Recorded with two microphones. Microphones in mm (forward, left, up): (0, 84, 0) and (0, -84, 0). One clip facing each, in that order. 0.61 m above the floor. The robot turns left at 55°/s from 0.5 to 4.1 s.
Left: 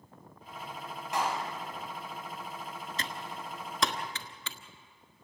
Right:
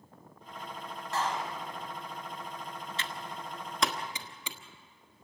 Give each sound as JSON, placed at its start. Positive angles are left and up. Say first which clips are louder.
{"t": 1.1, "sound": "a clap", "louder": "left 1 dB", "side_deg": 15, "distance_m": 3.0}
{"t": 3.0, "sound": "typing on a keyboard", "louder": "even", "side_deg": 45, "distance_m": 1.3}